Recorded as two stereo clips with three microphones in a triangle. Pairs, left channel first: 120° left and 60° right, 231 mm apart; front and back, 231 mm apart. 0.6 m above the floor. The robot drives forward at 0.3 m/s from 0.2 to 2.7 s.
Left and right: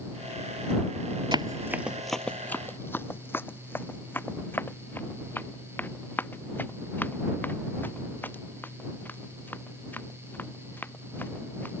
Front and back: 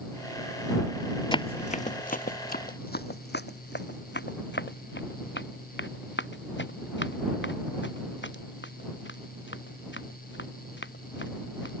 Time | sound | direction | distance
1.3 | running footsteps | 30° right | ?